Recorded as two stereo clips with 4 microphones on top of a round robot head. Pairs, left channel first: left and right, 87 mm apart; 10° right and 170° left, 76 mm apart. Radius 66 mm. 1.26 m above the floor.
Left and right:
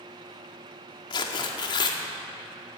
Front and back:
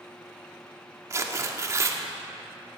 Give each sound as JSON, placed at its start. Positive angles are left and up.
{"t": 1.1, "sound": "tearing paper", "azimuth_deg": 125, "distance_m": 1.4}